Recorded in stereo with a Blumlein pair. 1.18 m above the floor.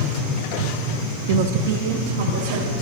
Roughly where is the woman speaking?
Ahead right.